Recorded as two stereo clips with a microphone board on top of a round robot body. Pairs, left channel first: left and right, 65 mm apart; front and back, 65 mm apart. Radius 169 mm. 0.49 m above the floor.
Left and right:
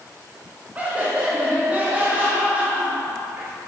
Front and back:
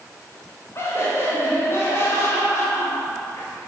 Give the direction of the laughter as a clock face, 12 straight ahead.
1 o'clock.